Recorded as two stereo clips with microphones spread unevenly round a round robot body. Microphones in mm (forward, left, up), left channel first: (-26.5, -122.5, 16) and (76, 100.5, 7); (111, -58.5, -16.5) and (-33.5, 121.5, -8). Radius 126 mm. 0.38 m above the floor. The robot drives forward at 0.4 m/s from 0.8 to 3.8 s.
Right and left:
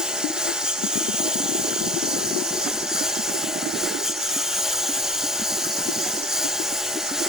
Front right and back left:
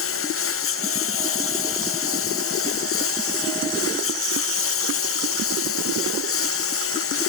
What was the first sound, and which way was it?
A lawn mower, 20° right.